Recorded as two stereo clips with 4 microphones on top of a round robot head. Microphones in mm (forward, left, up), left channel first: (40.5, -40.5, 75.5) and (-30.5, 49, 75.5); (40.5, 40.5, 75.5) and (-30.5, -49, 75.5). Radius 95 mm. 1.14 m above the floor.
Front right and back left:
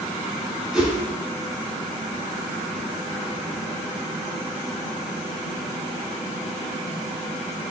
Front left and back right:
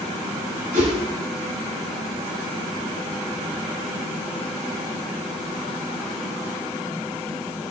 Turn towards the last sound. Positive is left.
turn(degrees=-145)